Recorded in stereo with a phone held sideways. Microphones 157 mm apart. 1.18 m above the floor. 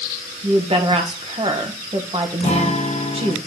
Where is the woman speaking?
35° right (ahead or behind), 1.1 m.